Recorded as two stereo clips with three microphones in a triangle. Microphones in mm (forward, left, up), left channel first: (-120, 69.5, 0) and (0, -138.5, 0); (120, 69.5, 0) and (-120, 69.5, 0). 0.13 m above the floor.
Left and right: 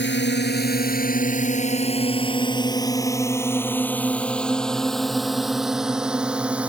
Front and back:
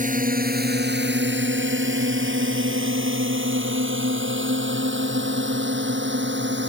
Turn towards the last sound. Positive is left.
turn(degrees=-145)